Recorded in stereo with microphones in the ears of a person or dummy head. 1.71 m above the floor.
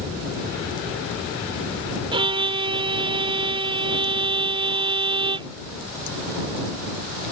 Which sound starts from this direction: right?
A violin, at 2.1 s.